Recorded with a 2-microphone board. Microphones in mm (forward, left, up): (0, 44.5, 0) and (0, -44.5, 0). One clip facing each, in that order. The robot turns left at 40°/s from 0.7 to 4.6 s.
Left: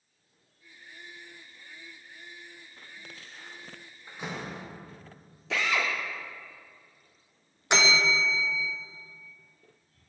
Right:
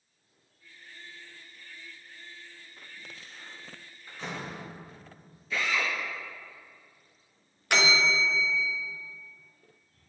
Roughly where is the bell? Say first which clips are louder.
Left 1 dB; left.